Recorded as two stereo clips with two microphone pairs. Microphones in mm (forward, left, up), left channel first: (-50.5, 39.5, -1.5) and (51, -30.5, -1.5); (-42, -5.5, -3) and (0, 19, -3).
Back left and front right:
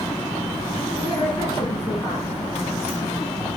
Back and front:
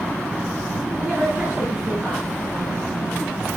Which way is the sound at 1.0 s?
95° left.